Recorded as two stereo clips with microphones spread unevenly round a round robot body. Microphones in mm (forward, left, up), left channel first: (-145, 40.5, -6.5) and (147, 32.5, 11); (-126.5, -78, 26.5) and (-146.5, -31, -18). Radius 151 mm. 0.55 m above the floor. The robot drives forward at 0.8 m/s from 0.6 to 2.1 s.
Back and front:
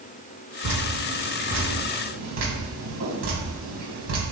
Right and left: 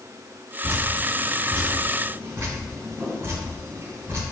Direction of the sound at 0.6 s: 25° left.